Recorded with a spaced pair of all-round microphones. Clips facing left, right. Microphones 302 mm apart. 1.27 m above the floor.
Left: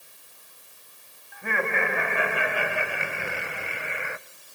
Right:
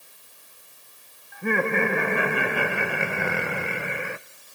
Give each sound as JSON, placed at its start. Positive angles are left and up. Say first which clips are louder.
{"t": 1.3, "sound": "laughter", "louder": "right 6 dB", "side_deg": -45, "distance_m": 3.5}